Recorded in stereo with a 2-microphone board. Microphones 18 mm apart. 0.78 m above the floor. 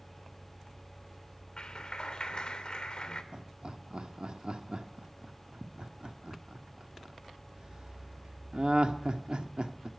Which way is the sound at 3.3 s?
60° right (ahead or behind).